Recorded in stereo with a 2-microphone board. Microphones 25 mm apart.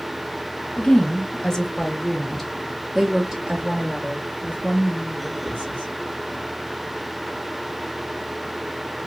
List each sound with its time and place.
0.8 s a woman speaking: 40° left (ahead or behind), 1.6 m; by 5.9 s 60° right (ahead or behind), 2.5 m